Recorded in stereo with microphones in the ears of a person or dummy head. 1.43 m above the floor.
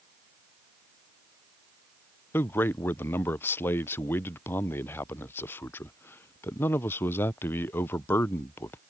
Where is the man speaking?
10° left (ahead or behind).